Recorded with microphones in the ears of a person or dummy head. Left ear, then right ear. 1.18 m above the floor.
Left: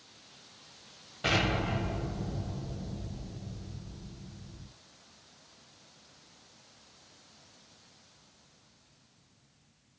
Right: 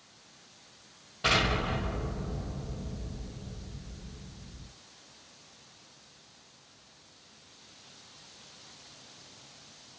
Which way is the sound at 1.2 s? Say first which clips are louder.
Right 2 dB; 5° left (ahead or behind).